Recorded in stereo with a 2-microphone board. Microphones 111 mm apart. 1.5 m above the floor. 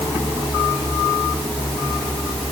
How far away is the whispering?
No whispering in this recording.